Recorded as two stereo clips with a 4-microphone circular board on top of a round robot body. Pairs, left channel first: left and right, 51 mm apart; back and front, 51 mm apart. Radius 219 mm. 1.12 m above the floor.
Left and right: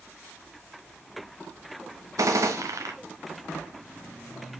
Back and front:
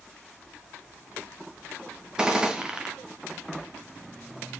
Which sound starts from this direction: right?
A gunshot, at 2.2 s.